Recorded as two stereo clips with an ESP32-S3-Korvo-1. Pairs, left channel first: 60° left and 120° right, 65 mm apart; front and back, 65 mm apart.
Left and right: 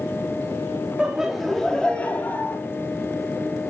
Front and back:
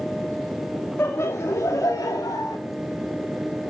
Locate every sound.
1.0 s laughter: 45° right, 1.7 m; by 2.6 s 10° left, 2 m